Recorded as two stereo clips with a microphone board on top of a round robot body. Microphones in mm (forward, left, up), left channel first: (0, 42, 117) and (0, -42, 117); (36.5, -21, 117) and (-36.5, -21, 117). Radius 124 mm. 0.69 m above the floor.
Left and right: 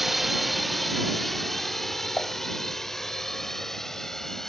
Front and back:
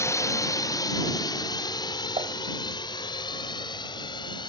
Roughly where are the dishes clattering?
Behind.